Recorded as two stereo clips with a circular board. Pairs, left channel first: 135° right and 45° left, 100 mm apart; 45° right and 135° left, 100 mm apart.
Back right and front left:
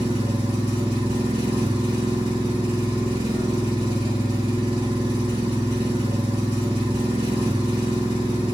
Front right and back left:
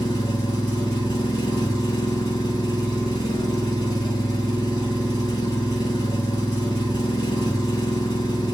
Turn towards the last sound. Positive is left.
turn(degrees=5)